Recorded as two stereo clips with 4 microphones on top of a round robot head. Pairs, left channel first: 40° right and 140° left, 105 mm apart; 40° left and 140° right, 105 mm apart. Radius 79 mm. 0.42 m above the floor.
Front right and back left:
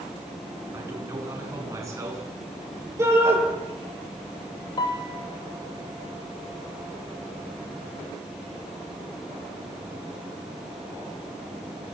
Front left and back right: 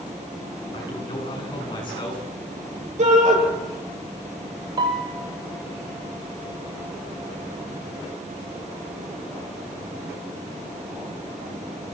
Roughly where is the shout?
Behind right.